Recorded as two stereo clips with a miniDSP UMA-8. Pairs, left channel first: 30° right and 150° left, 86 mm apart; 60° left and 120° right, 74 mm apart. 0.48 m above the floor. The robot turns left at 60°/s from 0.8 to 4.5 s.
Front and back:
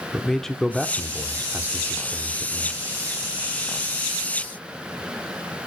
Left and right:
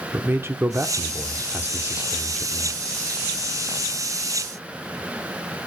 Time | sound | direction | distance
0.1 | a man speaking | 110° right | 0.8 m